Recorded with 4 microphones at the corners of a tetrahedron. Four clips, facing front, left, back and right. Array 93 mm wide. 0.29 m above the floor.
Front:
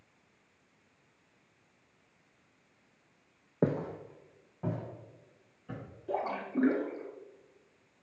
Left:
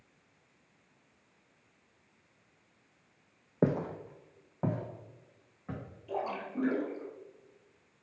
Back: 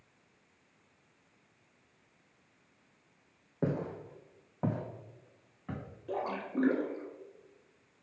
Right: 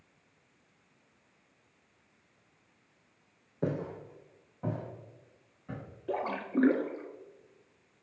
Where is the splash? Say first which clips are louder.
Right 3 dB, front 2 dB; 80° right, 0.9 m.